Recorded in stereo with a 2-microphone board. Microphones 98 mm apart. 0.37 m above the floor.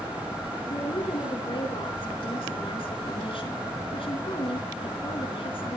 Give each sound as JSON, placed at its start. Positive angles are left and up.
{"t": 0.7, "sound": "a woman speaking", "side_deg": 70, "distance_m": 4.5}